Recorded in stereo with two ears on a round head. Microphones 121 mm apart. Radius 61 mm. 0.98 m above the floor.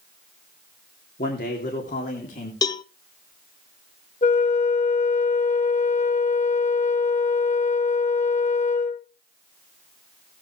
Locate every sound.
1.2 s a man speaking: 75° left (ahead or behind), 3 m; by 2.5 s 65° left (ahead or behind), 3.5 m
2.6 s a cowbell: 30° left (ahead or behind), 0.8 m
4.2 s a flute: 50° left (ahead or behind), 1.1 m